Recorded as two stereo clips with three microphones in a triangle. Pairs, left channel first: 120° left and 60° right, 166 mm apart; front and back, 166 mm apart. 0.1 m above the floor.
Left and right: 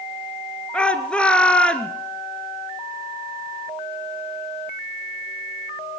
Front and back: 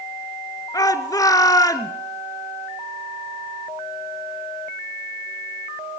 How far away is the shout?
About 1.2 m.